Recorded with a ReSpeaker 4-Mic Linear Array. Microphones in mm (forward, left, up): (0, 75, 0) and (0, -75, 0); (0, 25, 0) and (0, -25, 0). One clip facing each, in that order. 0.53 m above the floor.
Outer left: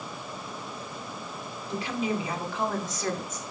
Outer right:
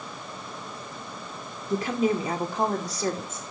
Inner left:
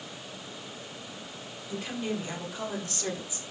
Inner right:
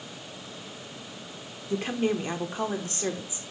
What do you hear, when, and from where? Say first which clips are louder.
1.7 s a woman speaking: outer right 5 dB, inner right 6 dB; 45° right (ahead or behind), 1.8 m; by 3.4 s 25° right (ahead or behind), 1.9 m